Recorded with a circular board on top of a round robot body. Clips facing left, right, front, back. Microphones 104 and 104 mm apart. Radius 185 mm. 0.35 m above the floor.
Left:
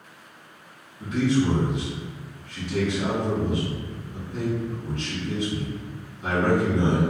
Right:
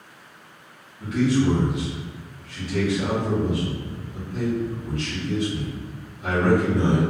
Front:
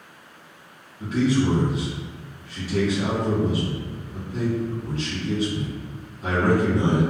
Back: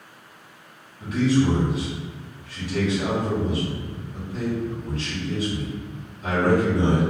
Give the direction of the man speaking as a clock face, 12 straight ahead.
11 o'clock.